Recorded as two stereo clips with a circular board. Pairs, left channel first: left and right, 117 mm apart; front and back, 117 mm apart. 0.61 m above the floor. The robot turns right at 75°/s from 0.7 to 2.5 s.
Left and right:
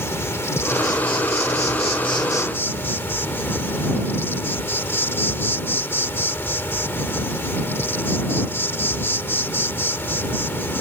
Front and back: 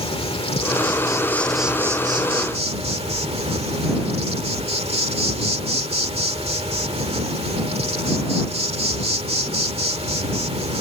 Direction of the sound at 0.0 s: 25° left.